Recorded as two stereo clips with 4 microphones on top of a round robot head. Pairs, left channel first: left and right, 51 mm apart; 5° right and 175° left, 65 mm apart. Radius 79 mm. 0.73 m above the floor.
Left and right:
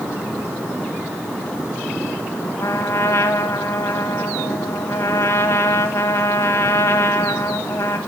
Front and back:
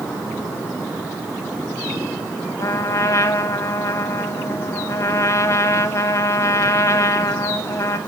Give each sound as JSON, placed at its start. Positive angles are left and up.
{"t": 2.6, "sound": "a trumpet", "azimuth_deg": 35, "distance_m": 1.0}